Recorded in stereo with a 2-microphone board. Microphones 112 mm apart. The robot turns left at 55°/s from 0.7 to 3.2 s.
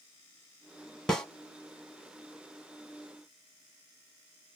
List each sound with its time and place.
1.1 s a snare drum: 5° left (ahead or behind), 0.9 m; by 1.2 s 10° left (ahead or behind), 0.9 m